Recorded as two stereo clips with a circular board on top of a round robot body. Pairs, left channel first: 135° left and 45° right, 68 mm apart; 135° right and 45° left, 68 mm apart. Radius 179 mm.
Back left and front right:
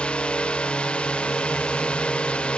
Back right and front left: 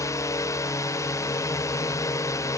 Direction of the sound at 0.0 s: 155° right.